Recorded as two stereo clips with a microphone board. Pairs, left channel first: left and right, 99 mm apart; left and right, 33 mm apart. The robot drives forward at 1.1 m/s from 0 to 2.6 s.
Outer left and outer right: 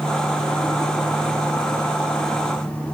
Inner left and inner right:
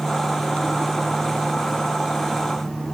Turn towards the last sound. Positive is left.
No sound to turn to.